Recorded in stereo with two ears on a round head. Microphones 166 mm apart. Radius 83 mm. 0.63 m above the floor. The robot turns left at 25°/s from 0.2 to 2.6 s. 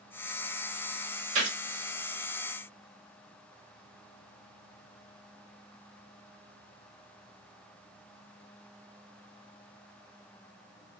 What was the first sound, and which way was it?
A gunshot, 45° right (ahead or behind).